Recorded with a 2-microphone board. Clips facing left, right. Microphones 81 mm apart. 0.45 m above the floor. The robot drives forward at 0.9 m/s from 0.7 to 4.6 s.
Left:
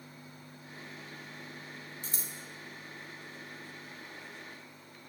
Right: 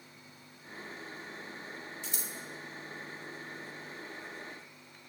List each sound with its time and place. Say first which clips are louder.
2.0 s scissors: right 2 dB; 40° left (ahead or behind), 0.7 m